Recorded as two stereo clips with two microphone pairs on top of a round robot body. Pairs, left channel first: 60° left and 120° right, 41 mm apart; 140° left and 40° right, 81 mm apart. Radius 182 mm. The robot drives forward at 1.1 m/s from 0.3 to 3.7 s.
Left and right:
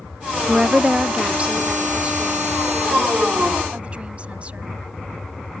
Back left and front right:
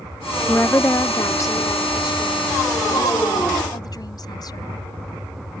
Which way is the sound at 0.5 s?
165° right.